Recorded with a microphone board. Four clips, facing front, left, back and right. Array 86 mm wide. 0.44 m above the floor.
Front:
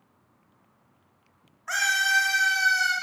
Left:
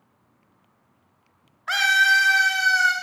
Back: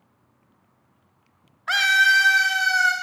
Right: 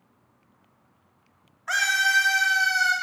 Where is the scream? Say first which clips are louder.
Left 4 dB, back 6 dB; 155° left, 0.9 m; by 2.9 s 145° left, 1.9 m.